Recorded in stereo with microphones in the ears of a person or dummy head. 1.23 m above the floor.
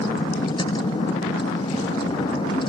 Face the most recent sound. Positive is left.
turn(degrees=30)  # may be behind; listen again after turning